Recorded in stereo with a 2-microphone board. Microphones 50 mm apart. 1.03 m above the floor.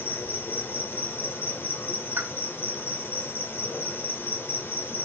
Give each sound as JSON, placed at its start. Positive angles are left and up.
{"t": 0.0, "sound": "an insect", "side_deg": 55, "distance_m": 1.8}
{"t": 2.2, "sound": "a pop", "side_deg": -55, "distance_m": 1.8}